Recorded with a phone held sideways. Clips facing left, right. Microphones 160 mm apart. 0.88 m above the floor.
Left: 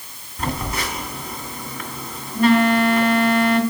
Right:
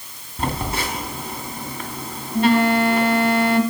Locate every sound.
0.4 s a phone buzzing: 30° right (ahead or behind), 2.5 m